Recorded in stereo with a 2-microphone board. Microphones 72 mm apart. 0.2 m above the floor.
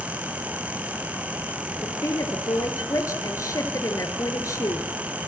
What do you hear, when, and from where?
1.8 s a woman speaking: 50° left (ahead or behind), 3.5 m